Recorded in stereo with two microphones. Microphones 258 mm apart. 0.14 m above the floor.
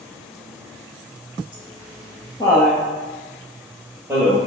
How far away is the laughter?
About 2.5 m.